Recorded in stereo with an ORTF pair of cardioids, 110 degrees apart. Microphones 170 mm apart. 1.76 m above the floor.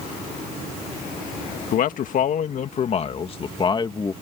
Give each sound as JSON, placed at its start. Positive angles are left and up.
{"t": 1.7, "sound": "a man speaking", "azimuth_deg": 65}